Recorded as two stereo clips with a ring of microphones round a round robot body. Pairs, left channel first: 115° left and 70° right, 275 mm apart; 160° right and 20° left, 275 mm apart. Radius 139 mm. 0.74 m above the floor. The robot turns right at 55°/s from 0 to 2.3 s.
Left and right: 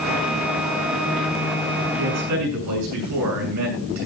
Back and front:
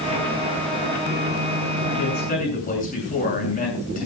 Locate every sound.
2.0 s a man speaking: 115° right, 7.5 m; by 4.1 s 95° right, 7.5 m